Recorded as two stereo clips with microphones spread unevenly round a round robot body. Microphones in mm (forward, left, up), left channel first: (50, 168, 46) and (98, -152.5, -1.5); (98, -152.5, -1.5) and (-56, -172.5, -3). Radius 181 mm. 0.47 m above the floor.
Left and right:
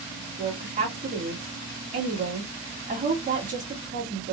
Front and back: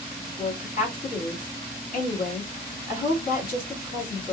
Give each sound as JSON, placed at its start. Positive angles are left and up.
{"t": 0.4, "sound": "a woman speaking", "azimuth_deg": -15, "distance_m": 2.5}